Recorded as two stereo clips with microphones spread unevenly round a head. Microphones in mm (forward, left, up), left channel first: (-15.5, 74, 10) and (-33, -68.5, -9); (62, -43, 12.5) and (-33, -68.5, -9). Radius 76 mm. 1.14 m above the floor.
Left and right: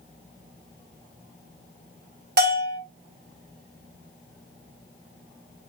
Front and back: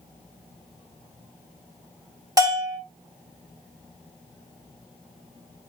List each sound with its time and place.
2.4 s a bell: 110° right, 2.5 m